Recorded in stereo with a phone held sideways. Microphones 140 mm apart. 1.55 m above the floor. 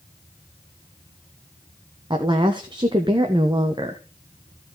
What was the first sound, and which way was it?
A woman speaking, 35° right (ahead or behind).